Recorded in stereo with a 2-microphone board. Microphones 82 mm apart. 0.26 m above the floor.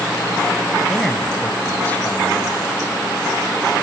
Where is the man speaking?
Centre (ahead or behind), 1.5 m; by 2.7 s 30° left (ahead or behind), 1.6 m.